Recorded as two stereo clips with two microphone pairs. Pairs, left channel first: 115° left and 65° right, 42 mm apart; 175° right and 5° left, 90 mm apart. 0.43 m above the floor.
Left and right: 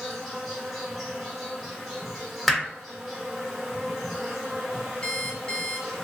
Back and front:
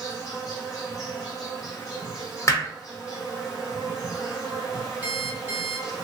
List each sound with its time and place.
0.0 s an insect: 150° right, 1.3 m
2.5 s hammering: 165° right, 0.8 m
5.0 s an alarm clock: 65° left, 0.6 m